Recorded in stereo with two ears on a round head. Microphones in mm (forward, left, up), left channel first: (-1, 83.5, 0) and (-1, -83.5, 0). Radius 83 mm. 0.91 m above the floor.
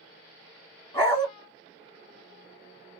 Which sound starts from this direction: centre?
A dog barking, at 0.9 s.